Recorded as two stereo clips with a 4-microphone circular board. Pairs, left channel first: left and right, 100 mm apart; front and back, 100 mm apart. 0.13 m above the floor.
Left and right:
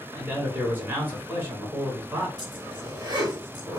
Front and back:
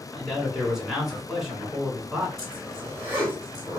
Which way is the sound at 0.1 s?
100° right.